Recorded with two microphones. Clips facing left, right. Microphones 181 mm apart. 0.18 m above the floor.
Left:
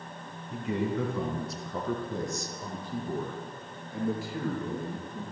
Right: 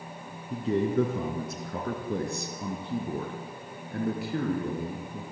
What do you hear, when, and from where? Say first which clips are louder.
0.5 s a man speaking: right 4 dB; 35° right (ahead or behind), 2.5 m; by 5.2 s 60° right (ahead or behind), 5 m